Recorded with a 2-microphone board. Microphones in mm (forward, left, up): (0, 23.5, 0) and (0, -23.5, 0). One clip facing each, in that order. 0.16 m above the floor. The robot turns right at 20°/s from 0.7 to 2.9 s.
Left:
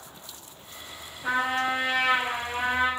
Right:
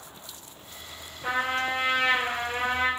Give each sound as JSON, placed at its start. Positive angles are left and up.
{"t": 1.2, "sound": "a trumpet", "azimuth_deg": -145, "distance_m": 1.2}